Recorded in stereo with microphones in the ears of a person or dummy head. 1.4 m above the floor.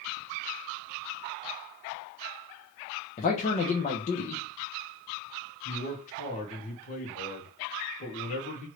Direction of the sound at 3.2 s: 35° left (ahead or behind).